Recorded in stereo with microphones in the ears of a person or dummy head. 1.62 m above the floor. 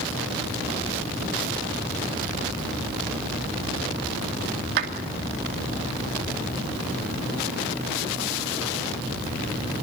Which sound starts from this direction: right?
A clap, at 4.8 s.